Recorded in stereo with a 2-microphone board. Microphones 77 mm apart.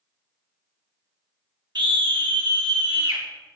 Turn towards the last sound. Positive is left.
turn(degrees=-75)  # may be behind; listen again after turning